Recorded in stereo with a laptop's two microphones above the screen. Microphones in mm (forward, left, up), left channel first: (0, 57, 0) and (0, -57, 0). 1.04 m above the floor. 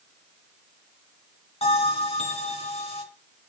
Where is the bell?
65° left (ahead or behind), 3 m.